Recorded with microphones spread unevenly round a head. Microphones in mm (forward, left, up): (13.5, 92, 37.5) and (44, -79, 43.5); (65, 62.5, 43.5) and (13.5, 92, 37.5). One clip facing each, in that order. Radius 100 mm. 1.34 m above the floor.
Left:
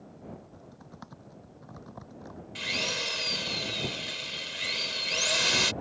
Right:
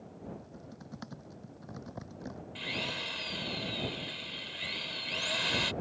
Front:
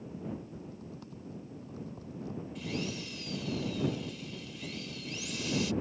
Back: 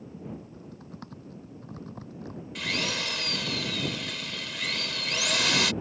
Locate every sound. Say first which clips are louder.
0.3 s typing on a keyboard: even, even; 150° right
2.5 s a drill: left 6 dB, back 8 dB; 145° left